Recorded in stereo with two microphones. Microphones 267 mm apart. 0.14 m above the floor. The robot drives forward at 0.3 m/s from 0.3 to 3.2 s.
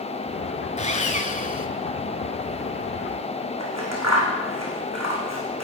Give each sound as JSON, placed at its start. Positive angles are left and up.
{"t": 0.8, "sound": "sawing", "side_deg": 25, "distance_m": 1.0}
{"t": 3.6, "sound": "scissors", "side_deg": -75, "distance_m": 3.0}